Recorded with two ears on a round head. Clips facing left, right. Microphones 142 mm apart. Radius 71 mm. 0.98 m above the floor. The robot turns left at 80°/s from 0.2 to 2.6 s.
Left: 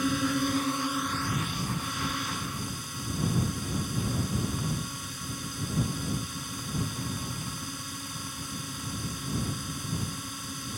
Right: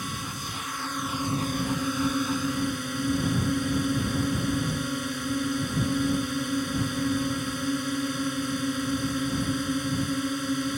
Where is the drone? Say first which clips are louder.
Left 10 dB; 65° left; by 10.8 s 125° right.